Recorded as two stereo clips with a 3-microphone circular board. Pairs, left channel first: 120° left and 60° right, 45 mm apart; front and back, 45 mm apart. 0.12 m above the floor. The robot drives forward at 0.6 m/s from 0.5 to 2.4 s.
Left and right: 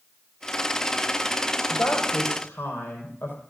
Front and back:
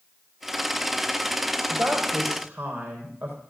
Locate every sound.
1.7 s a woman speaking: 135° left, 4 m; by 3.4 s 140° left, 4.5 m